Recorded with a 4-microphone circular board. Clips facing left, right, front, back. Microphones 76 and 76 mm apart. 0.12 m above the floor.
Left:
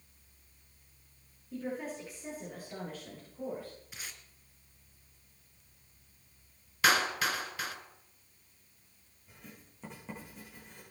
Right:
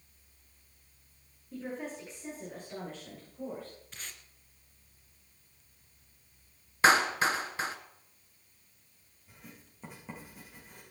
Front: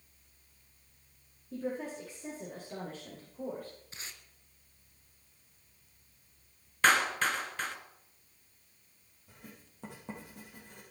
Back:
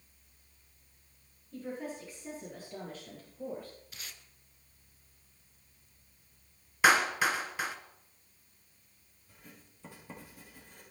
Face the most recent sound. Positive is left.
turn(degrees=0)